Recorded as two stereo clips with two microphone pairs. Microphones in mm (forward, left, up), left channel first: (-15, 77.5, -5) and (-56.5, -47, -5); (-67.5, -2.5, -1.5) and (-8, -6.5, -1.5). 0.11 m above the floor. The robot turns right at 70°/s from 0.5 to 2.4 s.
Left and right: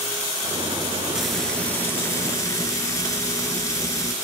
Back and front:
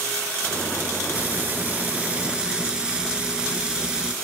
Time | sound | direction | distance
1.1 | frying | 30° right | 0.6 m